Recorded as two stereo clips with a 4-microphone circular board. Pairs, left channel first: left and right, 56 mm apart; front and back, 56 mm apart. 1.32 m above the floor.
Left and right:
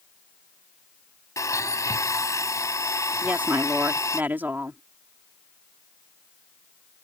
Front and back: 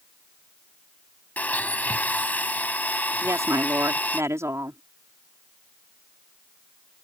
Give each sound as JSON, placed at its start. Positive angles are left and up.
{"t": 1.4, "sound": "a blender", "azimuth_deg": 65}
{"t": 3.2, "sound": "a woman speaking", "azimuth_deg": -145}